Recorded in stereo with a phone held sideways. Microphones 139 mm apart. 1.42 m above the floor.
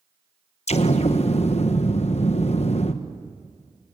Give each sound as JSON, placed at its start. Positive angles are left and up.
{"t": 0.7, "sound": "an explosion", "side_deg": 50, "distance_m": 1.1}